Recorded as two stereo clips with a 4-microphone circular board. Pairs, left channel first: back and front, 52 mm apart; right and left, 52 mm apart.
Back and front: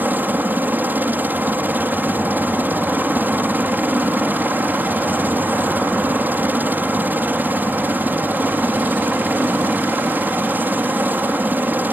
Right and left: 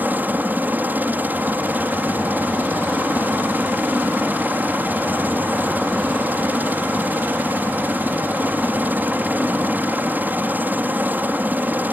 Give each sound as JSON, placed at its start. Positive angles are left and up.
{"t": 0.0, "sound": "a helicopter", "azimuth_deg": 45}